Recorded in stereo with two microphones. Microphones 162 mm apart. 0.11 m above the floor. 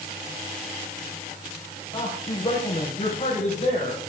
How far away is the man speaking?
About 4.5 m.